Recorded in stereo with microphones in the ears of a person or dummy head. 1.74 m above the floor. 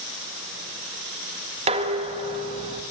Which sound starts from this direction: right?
Dishes clattering, at 1.7 s.